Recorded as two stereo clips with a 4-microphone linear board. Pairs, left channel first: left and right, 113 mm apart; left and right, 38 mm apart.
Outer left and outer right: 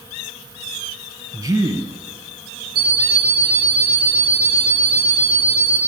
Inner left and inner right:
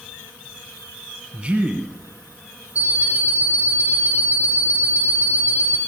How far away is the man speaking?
About 1.6 m.